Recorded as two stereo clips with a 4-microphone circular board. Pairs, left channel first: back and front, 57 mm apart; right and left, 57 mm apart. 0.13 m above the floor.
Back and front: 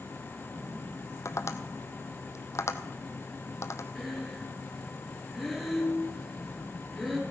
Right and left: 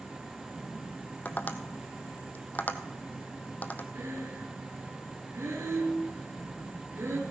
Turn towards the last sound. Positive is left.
turn(degrees=90)